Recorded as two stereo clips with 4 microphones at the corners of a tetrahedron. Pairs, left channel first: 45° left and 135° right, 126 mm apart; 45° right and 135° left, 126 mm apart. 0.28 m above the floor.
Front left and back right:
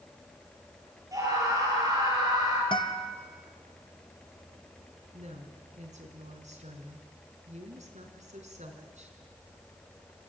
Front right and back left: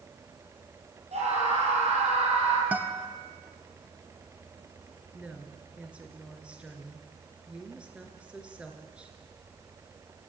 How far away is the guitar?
About 1.3 m.